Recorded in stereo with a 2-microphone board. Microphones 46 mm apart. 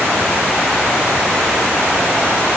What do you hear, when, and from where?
Only background noise.